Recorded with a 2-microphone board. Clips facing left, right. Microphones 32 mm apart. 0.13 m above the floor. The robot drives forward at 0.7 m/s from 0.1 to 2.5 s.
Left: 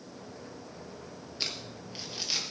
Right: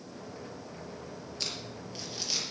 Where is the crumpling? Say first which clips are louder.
Left 2 dB; 20° left (ahead or behind), 3 m; by 2.4 s 15° left (ahead or behind), 3.5 m.